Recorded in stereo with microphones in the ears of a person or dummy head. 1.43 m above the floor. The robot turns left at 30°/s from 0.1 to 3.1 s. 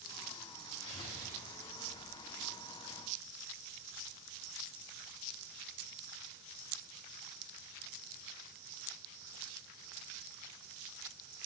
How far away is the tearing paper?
About 3 m.